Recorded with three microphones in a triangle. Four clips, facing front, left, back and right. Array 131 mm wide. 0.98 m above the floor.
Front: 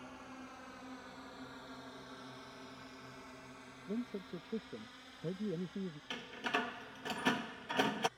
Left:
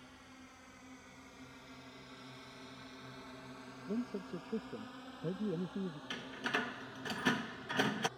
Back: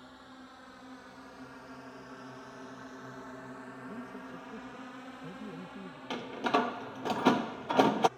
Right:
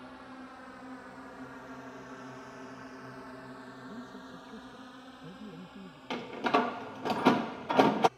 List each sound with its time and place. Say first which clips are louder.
0.0 s a drone: right 10 dB, front 1 dB; 80° right; by 8.2 s 160° left
3.9 s a man speaking: left 10 dB, front 5 dB; 55° left
6.1 s a door slam: right 13 dB, back 11 dB; 125° right